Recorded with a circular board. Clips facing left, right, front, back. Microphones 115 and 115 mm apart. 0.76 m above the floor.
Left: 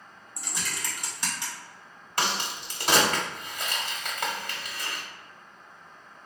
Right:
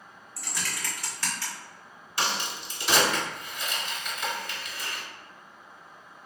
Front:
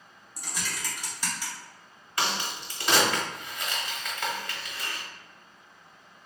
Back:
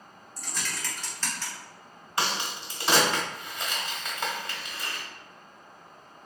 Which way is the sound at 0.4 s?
60° left.